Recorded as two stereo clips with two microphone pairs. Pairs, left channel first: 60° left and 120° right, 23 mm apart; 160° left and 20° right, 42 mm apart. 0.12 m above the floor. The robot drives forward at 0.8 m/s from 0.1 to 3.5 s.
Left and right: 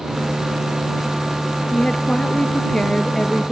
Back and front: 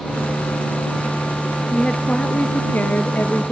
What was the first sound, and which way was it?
A woman speaking, 90° left.